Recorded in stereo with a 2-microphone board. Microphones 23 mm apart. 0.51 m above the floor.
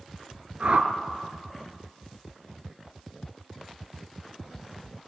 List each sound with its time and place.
0.6 s a whoosh: 55° right (ahead or behind), 1.2 m